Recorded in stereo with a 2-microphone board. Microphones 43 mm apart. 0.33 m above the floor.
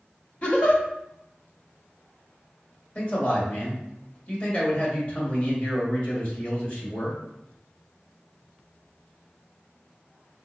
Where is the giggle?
35° left (ahead or behind), 0.9 m.